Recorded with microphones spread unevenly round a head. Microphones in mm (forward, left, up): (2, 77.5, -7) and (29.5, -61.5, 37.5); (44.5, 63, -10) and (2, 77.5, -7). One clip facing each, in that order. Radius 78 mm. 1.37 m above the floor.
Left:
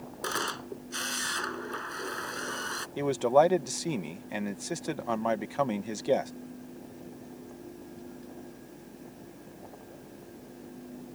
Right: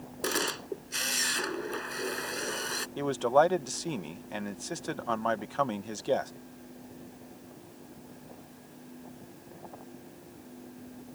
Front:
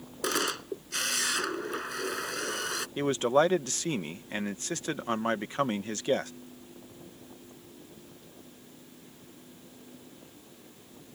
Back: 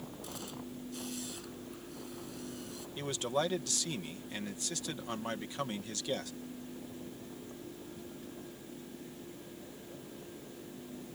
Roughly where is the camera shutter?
Ahead.